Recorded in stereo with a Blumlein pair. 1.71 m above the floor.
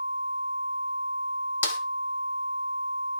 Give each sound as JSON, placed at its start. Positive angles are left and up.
{"t": 1.6, "sound": "a snare drum", "azimuth_deg": 65, "distance_m": 1.4}